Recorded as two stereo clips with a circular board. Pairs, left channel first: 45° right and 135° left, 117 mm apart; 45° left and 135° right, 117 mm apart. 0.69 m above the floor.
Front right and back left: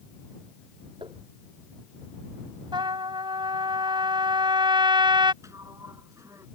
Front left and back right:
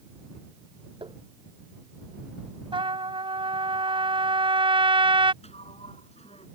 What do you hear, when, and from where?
1.0 s tapping: straight behind
2.7 s a trumpet: 175° right
5.4 s a sliding door: 70° left